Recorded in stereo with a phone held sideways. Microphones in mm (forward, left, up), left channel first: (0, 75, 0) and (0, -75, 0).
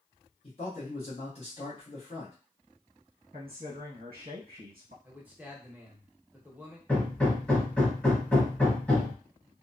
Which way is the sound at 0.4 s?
45° left (ahead or behind).